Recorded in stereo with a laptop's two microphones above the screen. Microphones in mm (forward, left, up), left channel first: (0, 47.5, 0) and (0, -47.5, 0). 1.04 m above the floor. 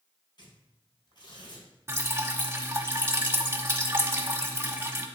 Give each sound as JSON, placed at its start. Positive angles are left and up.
{"t": 0.4, "sound": "tearing paper", "side_deg": 50, "distance_m": 4.0}
{"t": 1.9, "sound": "dripping", "side_deg": -25, "distance_m": 1.4}